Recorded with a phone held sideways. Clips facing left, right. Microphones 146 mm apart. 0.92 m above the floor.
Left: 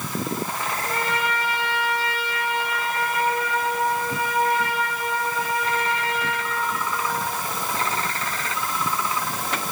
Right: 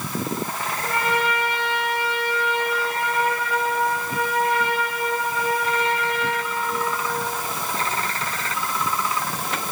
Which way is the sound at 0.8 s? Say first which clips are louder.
Right 4 dB; 70° right (ahead or behind).